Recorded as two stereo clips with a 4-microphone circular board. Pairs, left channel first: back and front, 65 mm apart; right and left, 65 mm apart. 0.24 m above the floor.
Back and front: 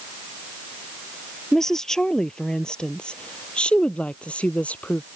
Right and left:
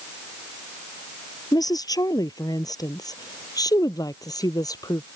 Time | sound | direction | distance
1.5 | a woman speaking | 95° right | ?